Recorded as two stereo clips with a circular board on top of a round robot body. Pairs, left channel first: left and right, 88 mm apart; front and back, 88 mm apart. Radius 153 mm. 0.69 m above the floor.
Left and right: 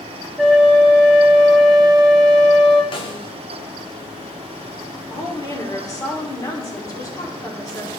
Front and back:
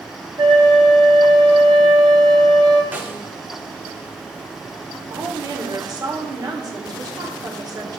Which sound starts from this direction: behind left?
A woman speaking, at 5.1 s.